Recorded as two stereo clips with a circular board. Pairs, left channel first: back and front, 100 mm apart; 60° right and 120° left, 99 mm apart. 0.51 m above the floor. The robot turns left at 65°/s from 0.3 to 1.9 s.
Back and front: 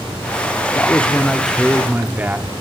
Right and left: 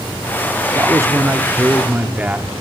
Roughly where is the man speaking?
Behind left.